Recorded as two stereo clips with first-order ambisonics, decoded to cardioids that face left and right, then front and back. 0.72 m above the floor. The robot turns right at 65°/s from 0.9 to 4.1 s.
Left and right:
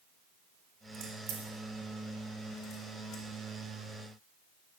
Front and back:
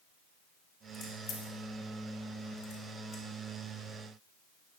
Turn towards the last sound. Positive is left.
turn(degrees=130)